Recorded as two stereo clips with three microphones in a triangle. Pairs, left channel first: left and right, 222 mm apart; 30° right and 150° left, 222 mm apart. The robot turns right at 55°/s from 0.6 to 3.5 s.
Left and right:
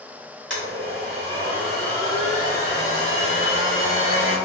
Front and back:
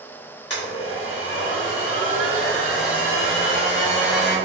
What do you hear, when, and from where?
0.5 s a blender: 60° right, 0.9 m; by 4.3 s 100° left, 0.9 m